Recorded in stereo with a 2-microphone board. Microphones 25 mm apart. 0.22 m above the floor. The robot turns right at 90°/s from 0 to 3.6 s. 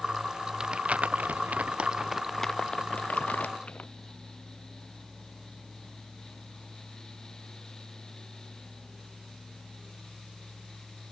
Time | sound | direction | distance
0.6 | crumpling | 25° right (ahead or behind) | ?